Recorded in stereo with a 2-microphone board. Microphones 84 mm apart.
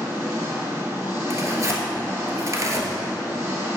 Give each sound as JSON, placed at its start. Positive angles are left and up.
{"t": 0.0, "sound": "an engine running", "side_deg": -25, "distance_m": 2.5}
{"t": 1.3, "sound": "tearing paper", "side_deg": -40, "distance_m": 1.1}